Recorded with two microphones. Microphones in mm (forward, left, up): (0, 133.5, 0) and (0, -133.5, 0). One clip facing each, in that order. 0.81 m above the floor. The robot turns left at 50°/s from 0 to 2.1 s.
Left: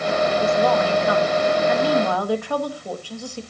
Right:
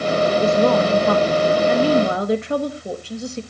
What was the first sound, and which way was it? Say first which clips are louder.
A woman speaking: right 4 dB; 60° right.